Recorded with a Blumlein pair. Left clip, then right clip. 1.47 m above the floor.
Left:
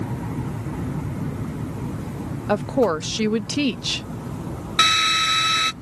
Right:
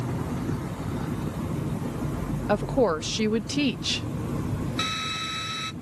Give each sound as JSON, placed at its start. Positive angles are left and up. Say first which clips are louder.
{"t": 2.5, "sound": "a woman speaking", "louder": "left 3 dB", "azimuth_deg": 10}
{"t": 4.8, "sound": "a drill", "louder": "left 13 dB", "azimuth_deg": 30}